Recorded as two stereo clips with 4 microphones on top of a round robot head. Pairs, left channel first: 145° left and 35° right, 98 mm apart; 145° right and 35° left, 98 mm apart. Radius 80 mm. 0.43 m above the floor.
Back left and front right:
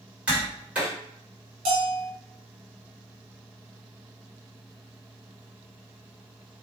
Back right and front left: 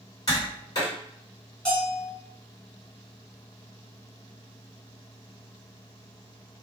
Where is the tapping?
110° right, 1.9 m.